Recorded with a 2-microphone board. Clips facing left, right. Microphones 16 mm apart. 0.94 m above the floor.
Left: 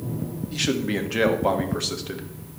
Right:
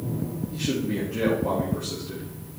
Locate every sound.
0.5 s a man speaking: 65° left (ahead or behind), 1.3 m